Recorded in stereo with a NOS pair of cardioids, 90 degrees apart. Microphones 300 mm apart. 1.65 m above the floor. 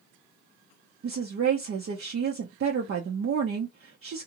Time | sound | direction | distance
1.0 | a woman speaking | 50° right | 0.7 m